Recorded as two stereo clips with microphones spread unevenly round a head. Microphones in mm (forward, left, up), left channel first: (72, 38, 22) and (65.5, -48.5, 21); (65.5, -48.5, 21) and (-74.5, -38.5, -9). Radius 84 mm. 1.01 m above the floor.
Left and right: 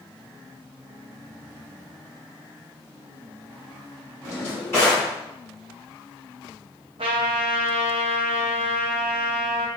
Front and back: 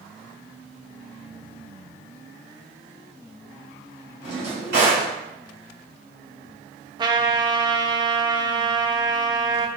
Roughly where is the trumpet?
Behind right.